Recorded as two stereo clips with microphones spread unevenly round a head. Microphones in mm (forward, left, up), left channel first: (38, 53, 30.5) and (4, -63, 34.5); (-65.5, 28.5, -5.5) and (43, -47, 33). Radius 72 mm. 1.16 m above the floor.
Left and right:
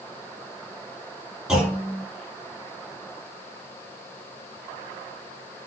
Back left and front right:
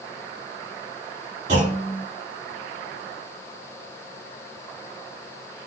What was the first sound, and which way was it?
A clunk, 20° right.